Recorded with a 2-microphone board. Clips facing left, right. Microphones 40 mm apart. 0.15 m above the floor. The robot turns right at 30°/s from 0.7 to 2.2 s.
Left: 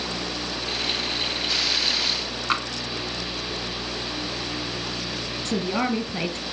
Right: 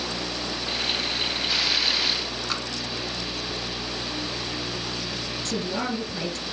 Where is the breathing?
I don't hear breathing.